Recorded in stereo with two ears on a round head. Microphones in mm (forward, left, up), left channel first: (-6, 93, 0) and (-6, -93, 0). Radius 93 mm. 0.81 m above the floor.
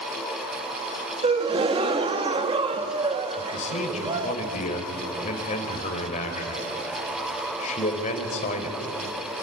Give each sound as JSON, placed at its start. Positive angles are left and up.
{"t": 1.2, "sound": "a gasp", "side_deg": -25, "distance_m": 1.4}
{"t": 3.4, "sound": "a man speaking", "side_deg": 35, "distance_m": 4.0}